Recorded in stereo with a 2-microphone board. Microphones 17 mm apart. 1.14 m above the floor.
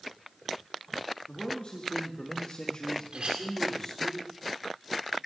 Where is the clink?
80° right, 2.0 m.